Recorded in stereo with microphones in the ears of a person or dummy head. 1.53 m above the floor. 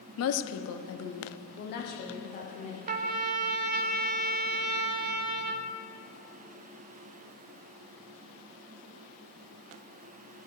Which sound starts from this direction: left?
A woman speaking, at 0.2 s.